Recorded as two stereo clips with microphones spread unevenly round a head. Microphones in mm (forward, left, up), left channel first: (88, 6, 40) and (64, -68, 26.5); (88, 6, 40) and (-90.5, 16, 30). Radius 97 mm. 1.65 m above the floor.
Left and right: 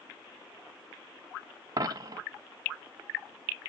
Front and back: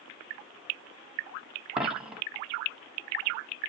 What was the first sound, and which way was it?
A dropped coin, 95° right.